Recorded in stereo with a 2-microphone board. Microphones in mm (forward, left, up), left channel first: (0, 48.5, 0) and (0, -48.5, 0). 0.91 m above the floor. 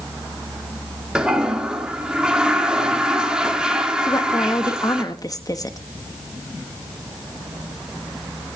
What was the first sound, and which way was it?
A toilet flushing, 10° right (ahead or behind).